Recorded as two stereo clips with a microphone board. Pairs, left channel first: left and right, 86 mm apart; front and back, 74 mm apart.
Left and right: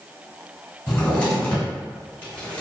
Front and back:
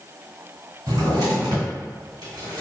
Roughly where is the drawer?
Behind.